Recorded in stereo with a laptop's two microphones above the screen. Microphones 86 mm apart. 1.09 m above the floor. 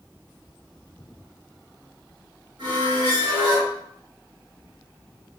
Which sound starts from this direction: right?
A squeak, at 2.6 s.